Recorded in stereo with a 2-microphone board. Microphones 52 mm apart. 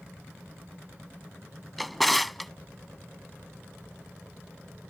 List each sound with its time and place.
1.8 s a drawer: centre (ahead or behind)